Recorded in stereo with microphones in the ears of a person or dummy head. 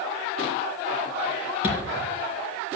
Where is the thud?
5° left (ahead or behind), 3 m.